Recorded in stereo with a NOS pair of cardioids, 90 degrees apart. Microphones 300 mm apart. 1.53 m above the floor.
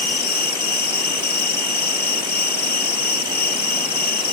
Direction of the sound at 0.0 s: 30° left.